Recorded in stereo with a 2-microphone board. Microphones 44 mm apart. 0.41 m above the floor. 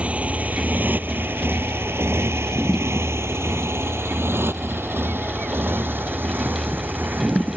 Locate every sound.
0.0 s a motorcycle: 30° right (ahead or behind); by 7.6 s 50° right (ahead or behind)